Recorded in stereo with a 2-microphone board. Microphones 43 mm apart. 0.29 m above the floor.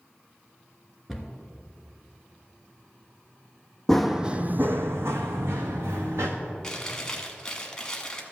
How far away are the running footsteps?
About 0.5 m.